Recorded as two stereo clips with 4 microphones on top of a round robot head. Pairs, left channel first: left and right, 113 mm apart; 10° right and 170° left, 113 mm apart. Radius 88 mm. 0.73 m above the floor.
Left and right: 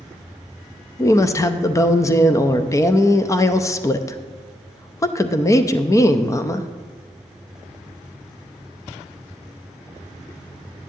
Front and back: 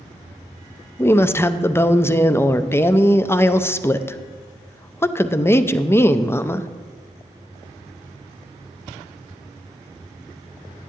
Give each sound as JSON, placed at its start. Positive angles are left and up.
{"t": 1.0, "sound": "a woman speaking", "azimuth_deg": 50, "distance_m": 0.5}